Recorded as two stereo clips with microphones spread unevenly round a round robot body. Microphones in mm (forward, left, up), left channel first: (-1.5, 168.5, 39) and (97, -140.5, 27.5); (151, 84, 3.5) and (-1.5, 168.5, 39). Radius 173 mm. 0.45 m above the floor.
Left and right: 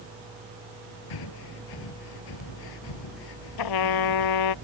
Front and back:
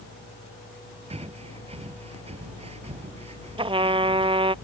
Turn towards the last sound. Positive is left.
turn(degrees=90)